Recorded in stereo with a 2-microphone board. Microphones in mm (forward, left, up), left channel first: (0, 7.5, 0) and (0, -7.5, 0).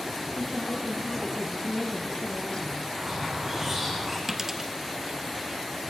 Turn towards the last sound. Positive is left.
turn(degrees=-15)  # may be behind; listen again after turning